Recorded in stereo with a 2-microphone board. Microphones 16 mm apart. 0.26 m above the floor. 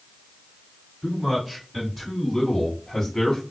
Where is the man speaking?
35° right (ahead or behind), 2.0 m; by 3.4 s 30° left (ahead or behind), 1.7 m.